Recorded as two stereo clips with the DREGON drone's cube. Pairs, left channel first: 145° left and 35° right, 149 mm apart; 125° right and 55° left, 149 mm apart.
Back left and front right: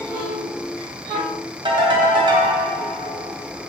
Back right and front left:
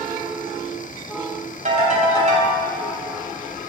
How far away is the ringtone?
About 3 m.